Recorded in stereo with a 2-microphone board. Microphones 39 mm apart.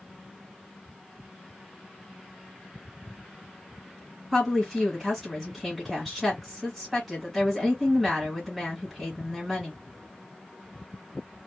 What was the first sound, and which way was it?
A woman speaking, centre (ahead or behind).